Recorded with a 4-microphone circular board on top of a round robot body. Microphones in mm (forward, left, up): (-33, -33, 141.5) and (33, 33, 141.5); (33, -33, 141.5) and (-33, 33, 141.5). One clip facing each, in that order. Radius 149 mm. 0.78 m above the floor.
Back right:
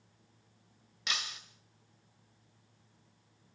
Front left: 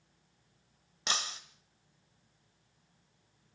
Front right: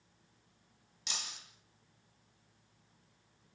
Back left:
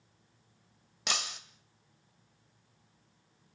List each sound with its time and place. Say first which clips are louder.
1.1 s breaking glass: front left 3 dB, back left 10 dB; 105° left, 1.0 m